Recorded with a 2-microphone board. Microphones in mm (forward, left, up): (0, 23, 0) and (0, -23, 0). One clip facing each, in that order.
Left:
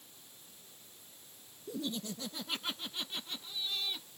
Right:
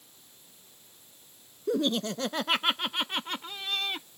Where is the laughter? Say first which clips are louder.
Right 12 dB; 70° right (ahead or behind); by 4.1 s 60° right (ahead or behind).